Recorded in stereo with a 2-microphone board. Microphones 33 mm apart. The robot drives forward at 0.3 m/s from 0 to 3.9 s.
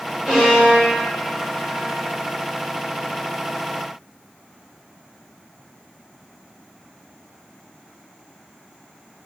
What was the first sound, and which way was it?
A violin, 15° right (ahead or behind).